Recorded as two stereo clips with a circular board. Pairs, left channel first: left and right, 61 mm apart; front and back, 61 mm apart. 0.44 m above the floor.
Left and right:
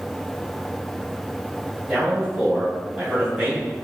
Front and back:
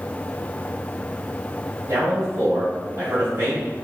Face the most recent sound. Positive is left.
turn(degrees=-165)